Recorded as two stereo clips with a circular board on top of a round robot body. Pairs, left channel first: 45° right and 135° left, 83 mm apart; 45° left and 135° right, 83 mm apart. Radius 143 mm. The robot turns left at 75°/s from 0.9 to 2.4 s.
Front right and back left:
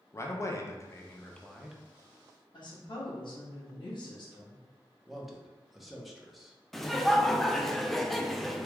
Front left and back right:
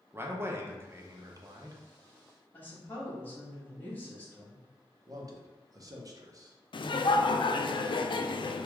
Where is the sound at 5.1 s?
135° right, 1.0 m.